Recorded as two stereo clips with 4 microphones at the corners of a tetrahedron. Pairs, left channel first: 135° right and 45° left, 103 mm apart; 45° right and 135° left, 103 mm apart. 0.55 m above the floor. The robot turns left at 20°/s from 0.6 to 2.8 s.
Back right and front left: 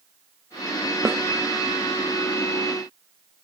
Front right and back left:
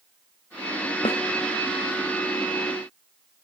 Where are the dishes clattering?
No dishes clattering in this recording.